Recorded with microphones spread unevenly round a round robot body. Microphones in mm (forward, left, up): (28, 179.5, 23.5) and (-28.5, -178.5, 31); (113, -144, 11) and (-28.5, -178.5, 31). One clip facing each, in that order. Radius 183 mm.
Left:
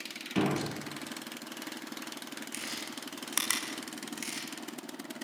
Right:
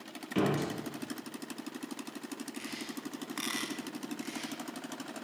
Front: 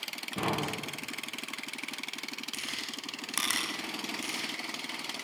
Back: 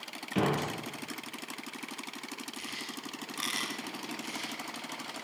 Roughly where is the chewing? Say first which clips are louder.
Right 2 dB, back 1 dB; ahead left.